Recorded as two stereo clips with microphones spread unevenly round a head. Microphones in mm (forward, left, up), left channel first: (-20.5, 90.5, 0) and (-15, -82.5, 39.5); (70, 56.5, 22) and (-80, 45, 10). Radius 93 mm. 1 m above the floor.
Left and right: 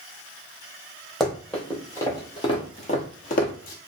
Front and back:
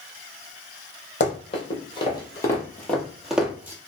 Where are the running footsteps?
10° right, 1.4 m; by 3.8 s 110° left, 1.2 m.